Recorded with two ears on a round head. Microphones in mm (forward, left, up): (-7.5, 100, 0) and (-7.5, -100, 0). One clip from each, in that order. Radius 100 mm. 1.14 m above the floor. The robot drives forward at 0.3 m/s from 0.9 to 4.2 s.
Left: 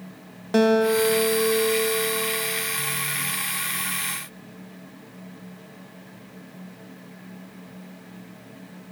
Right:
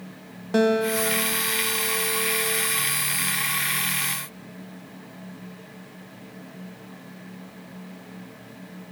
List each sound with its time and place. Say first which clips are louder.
0.5 s a guitar: left 2 dB; 15° left (ahead or behind), 0.6 m; by 2.6 s 5° left (ahead or behind), 1.0 m